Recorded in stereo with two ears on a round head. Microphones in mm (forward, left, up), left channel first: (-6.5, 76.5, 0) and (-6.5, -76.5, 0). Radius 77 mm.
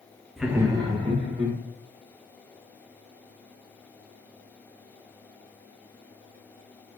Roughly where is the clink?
No clink in this recording.